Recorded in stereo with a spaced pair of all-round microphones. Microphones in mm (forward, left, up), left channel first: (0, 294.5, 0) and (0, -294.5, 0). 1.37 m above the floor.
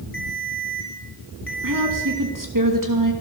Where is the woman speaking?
30° right (ahead or behind), 2.5 m.